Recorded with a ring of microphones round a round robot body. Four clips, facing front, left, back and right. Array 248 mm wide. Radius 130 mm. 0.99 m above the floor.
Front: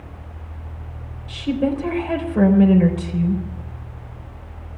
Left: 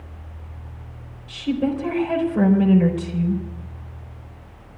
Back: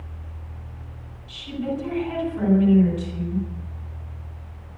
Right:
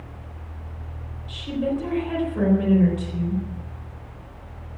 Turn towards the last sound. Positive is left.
turn(degrees=20)